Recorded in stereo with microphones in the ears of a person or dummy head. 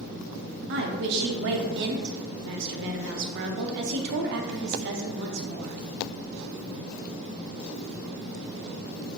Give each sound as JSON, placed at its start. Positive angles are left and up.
{"t": 0.7, "sound": "a woman speaking", "side_deg": -55, "distance_m": 0.7}